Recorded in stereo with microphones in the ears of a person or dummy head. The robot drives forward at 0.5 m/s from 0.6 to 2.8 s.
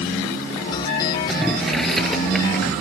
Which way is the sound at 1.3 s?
Centre (ahead or behind).